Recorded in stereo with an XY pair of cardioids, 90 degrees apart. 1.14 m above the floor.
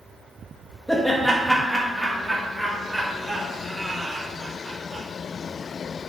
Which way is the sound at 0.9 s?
5° left.